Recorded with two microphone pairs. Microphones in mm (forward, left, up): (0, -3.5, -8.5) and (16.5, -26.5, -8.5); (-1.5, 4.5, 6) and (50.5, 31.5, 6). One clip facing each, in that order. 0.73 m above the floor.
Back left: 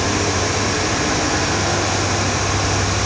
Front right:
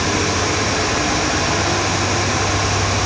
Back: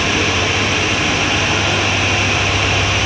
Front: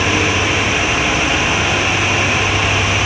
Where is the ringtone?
No ringtone in this recording.